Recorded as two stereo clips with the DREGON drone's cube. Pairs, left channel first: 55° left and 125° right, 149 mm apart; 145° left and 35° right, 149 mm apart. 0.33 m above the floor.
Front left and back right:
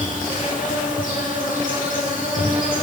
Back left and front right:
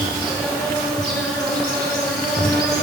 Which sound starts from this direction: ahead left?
An insect, at 0.0 s.